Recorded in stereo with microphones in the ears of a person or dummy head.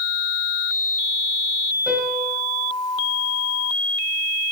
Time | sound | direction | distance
1.9 | a piano | 5° right (ahead or behind) | 6 m